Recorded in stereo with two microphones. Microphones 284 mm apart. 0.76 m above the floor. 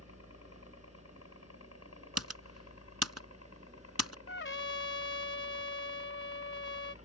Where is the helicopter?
60° left (ahead or behind).